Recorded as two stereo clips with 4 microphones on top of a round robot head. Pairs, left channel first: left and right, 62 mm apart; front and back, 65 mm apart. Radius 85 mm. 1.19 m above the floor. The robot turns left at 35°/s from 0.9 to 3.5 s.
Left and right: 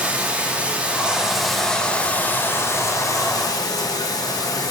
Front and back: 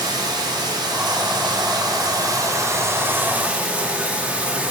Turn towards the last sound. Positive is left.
turn(degrees=110)